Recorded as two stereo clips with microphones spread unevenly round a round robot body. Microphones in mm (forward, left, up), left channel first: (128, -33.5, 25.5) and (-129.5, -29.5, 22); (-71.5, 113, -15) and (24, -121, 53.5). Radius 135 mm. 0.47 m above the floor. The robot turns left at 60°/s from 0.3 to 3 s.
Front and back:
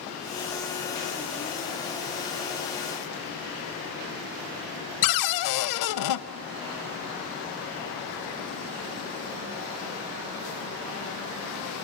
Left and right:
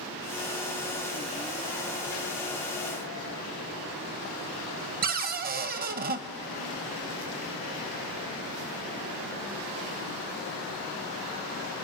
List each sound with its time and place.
5.0 s a cupboard door: 10° right, 0.8 m